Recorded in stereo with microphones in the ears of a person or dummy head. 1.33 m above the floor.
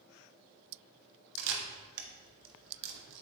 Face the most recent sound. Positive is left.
turn(degrees=-70)  # may be behind; listen again after turning